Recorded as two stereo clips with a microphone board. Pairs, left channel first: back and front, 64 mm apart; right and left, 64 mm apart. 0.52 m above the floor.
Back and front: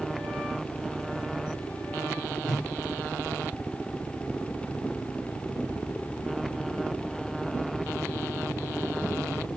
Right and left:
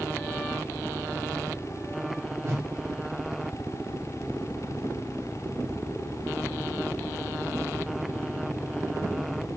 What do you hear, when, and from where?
2.4 s a whoosh: 100° left, 0.9 m